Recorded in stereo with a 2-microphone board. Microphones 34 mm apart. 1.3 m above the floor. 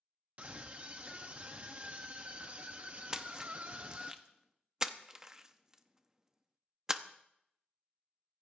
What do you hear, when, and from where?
0.4 s a scream: 40° right (ahead or behind), 0.7 m
3.1 s a splash: 20° right (ahead or behind), 0.7 m